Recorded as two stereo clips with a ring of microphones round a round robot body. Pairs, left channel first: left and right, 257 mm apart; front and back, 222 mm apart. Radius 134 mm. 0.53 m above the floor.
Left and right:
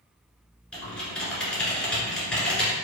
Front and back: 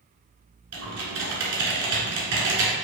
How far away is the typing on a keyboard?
About 1.5 m.